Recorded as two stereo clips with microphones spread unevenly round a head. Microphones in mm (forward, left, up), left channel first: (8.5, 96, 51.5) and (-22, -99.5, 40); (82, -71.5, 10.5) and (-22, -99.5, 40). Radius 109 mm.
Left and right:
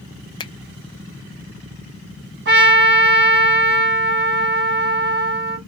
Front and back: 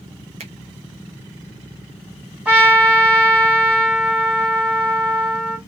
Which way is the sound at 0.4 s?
150° left.